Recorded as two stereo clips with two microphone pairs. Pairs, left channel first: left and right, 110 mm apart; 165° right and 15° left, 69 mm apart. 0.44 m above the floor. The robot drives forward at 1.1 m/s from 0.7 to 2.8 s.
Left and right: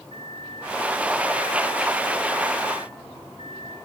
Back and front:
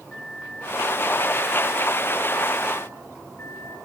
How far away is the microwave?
About 5 m.